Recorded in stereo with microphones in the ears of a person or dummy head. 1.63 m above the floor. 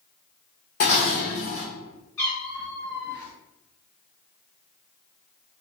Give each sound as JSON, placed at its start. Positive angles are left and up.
{"t": 0.8, "sound": "dishes clattering", "side_deg": 45, "distance_m": 0.9}
{"t": 2.2, "sound": "a cat meowing", "side_deg": 15, "distance_m": 1.7}